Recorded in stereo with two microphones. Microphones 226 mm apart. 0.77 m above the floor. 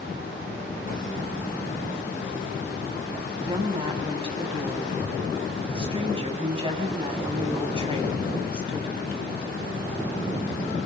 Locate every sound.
3.4 s a woman speaking: 25° right (ahead or behind), 6 m